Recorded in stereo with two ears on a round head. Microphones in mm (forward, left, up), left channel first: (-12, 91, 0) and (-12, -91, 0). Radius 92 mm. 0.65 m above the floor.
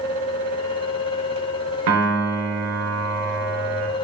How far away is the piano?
About 0.7 m.